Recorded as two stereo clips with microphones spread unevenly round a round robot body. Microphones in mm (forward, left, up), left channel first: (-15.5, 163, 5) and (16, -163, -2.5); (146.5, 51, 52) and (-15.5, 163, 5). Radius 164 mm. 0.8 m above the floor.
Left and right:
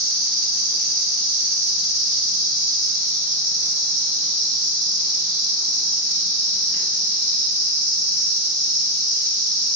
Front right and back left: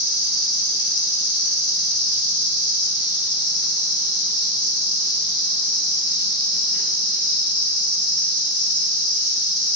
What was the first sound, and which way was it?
An insect, 115° right.